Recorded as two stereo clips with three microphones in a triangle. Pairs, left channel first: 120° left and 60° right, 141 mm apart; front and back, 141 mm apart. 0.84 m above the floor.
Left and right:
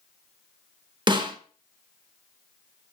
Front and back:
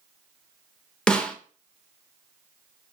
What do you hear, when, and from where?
1.1 s a snare drum: 80° right, 0.5 m